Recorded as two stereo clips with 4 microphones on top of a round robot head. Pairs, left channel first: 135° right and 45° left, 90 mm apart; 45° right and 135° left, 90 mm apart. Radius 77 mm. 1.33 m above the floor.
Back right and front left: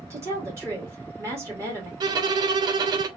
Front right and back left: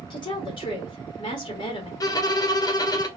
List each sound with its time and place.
0.1 s a woman speaking: 10° right, 2.5 m
2.0 s a violin: 5° left, 0.7 m